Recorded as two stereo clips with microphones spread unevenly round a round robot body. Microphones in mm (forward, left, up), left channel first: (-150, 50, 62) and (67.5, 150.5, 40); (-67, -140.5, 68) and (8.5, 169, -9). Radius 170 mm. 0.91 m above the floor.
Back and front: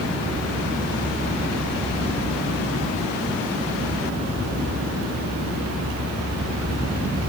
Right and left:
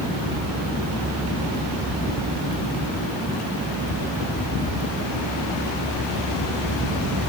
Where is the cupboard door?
No cupboard door in this recording.